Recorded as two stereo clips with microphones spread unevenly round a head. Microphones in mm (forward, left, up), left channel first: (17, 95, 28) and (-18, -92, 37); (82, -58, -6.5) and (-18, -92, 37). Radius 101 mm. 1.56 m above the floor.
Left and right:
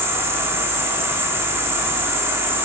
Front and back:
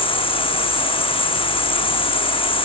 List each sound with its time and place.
0.0 s an insect: 25° right, 1.9 m